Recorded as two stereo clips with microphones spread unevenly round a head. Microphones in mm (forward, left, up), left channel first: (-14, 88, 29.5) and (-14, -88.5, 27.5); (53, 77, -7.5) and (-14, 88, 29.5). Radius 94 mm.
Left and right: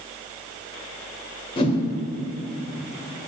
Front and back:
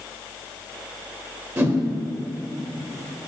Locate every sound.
1.6 s a whoosh: 150° left, 1.5 m